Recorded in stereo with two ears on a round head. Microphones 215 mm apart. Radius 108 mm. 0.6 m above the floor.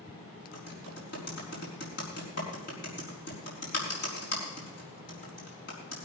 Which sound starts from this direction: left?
Typing on a keyboard, at 0.5 s.